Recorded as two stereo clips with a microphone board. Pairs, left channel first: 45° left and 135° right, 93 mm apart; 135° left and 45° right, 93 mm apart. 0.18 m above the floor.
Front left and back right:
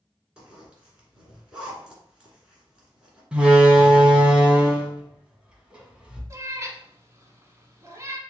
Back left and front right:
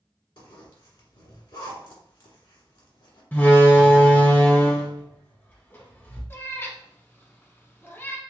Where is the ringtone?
No ringtone in this recording.